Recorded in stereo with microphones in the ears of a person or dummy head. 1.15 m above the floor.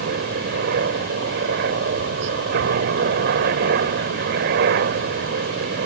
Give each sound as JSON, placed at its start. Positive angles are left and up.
{"t": 0.0, "sound": "a helicopter", "side_deg": -55}